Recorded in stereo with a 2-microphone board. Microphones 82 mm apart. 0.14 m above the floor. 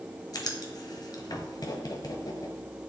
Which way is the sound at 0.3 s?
50° left (ahead or behind).